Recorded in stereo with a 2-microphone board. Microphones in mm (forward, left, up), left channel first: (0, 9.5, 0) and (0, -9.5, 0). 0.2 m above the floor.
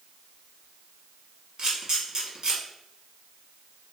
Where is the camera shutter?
40° right (ahead or behind), 1.0 m.